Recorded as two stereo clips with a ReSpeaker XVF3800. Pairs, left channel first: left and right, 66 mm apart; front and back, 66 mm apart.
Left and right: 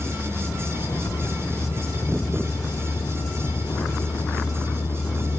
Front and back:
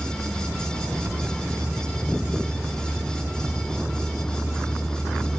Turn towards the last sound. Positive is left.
turn(degrees=85)